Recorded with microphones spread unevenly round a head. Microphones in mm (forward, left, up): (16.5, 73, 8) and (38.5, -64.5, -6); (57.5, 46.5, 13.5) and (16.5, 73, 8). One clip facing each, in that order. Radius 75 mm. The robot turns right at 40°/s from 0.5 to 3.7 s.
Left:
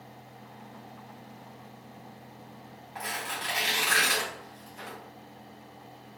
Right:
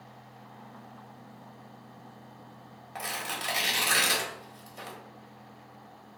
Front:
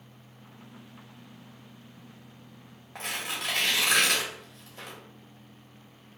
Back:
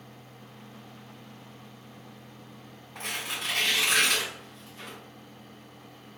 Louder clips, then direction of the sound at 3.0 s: Even, even; 70° right.